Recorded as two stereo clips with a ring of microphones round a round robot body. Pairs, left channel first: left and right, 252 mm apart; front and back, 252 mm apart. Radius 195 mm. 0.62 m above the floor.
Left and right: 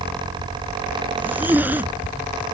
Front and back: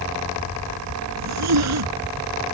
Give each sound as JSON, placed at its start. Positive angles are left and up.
{"t": 1.2, "sound": "a zipper", "azimuth_deg": -175}